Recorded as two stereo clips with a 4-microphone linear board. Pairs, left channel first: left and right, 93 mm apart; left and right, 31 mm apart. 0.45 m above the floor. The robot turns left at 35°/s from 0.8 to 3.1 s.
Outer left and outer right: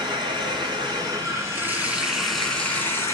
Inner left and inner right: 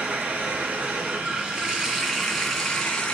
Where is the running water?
125° right, 2.5 m; by 3.1 s 150° left, 2.5 m.